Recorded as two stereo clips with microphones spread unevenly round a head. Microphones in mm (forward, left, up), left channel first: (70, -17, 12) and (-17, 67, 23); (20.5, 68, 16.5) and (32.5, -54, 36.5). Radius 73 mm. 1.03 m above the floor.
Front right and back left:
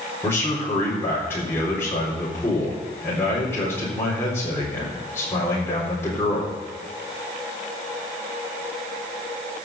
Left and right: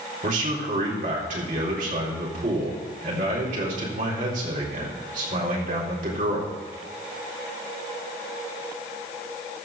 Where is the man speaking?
120° right, 4 m.